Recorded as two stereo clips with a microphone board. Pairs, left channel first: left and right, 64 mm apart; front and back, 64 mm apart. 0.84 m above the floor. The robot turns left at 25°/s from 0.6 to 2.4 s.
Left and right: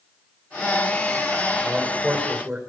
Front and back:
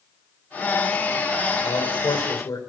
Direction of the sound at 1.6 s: 5° right.